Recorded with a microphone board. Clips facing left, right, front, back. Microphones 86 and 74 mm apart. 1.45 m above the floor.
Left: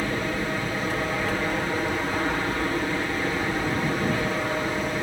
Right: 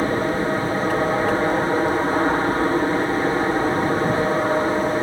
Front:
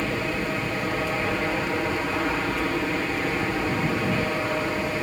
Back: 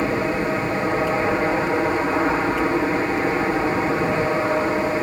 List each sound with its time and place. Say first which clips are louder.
0.0 s an aircraft: right 6 dB, back 6 dB; 130° right